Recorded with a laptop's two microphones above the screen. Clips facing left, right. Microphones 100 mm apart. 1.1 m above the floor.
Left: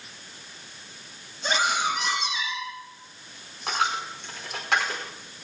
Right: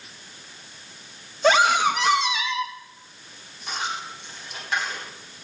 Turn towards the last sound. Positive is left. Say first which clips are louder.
# left 4 dB
turn(degrees=75)  # may be behind; listen again after turning